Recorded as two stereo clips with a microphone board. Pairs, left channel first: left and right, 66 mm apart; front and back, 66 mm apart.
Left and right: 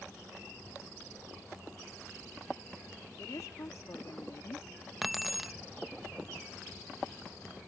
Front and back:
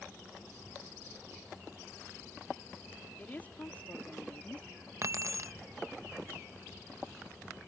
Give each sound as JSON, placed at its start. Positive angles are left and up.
{"t": 3.2, "sound": "a woman speaking", "azimuth_deg": 65}
{"t": 5.0, "sound": "keys jangling", "azimuth_deg": -175}